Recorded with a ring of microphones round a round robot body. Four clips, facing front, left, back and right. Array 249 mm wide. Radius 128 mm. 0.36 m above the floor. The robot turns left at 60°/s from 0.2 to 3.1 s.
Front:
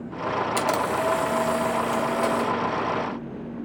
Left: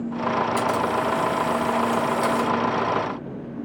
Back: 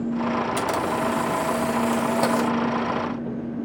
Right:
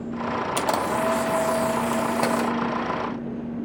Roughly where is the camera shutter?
Ahead right.